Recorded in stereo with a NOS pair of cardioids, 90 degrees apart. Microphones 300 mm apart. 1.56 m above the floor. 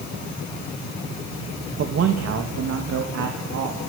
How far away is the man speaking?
About 2.5 m.